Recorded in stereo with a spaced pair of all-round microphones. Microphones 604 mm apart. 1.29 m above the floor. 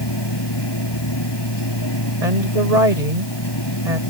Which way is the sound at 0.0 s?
40° left (ahead or behind).